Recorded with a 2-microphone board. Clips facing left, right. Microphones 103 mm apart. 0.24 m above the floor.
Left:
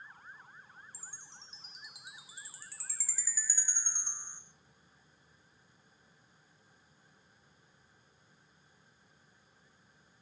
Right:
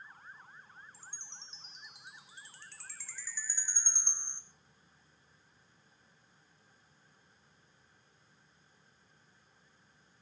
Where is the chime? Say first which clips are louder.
Even; 5° left (ahead or behind), 0.9 m.